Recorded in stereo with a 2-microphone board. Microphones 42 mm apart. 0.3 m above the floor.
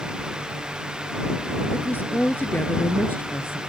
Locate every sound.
1.7 s a woman speaking: 55° left (ahead or behind)